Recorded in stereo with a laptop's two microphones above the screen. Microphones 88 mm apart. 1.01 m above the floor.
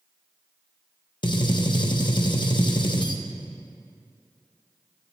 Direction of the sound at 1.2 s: 60° left (ahead or behind).